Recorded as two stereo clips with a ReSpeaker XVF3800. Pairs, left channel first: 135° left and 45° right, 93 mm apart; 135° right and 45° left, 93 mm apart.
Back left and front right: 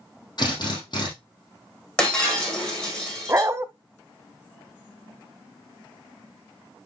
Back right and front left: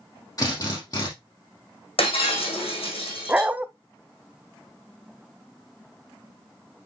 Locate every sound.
0.4 s a drill: 175° left, 5 m
2.0 s breaking glass: 145° right, 5 m
3.3 s a dog barking: 15° right, 0.5 m